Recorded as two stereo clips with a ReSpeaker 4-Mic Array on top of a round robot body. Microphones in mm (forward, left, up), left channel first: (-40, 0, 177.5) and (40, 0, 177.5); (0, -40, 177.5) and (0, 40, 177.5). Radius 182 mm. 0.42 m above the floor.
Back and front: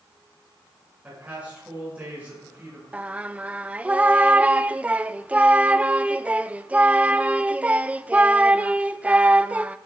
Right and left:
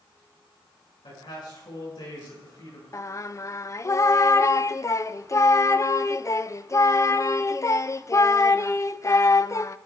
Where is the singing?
65° right, 0.6 m.